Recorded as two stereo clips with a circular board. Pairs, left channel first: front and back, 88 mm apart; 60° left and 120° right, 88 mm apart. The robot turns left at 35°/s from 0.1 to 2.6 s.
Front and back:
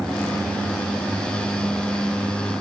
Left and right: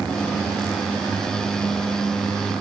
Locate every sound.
Only background noise.